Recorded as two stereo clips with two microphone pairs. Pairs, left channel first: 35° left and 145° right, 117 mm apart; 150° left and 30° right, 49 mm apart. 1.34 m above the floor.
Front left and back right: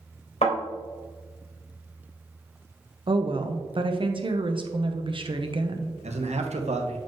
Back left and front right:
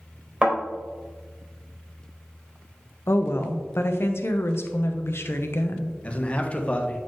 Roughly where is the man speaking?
Behind right.